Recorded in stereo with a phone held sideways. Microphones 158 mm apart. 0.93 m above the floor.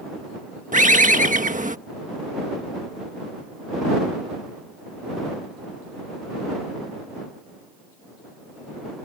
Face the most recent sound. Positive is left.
turn(degrees=-55)  # may be behind; listen again after turning